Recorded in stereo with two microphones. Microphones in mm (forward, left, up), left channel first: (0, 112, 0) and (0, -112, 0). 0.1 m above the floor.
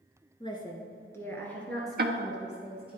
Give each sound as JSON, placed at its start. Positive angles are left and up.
{"t": 0.4, "sound": "a woman speaking", "side_deg": 25, "distance_m": 1.1}
{"t": 2.0, "sound": "ticking", "side_deg": -50, "distance_m": 0.6}